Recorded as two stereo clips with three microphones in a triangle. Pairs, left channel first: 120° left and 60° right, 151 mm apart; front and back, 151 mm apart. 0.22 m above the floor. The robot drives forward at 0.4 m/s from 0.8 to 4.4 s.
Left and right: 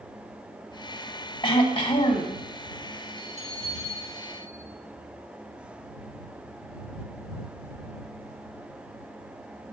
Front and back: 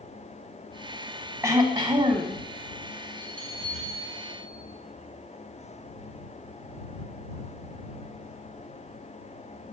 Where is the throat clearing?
130° left, 0.7 m; by 2.4 s 155° left, 0.9 m.